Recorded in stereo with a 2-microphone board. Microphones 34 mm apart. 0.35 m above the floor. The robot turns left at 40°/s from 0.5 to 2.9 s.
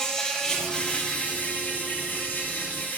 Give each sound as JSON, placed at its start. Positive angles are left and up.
{"t": 0.0, "sound": "an insect", "azimuth_deg": 160, "distance_m": 1.0}